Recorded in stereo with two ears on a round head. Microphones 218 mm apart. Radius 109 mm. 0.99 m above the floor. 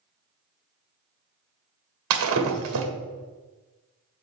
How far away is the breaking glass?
About 1.3 m.